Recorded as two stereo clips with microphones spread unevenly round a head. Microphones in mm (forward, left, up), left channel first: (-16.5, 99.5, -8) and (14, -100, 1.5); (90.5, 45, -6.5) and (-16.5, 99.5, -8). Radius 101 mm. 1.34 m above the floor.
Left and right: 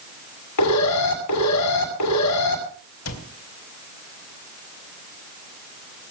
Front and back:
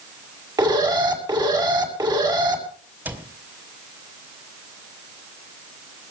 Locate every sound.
0.6 s an alarm: 100° left, 7.5 m
3.0 s a cupboard door: 80° left, 3 m